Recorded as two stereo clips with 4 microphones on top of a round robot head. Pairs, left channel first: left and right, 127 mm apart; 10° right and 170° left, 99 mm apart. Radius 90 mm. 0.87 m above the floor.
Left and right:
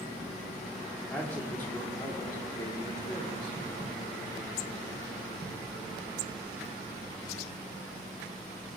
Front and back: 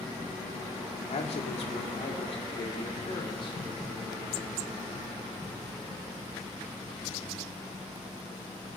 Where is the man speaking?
5° left, 1.9 m; by 3.6 s 35° left, 2.5 m.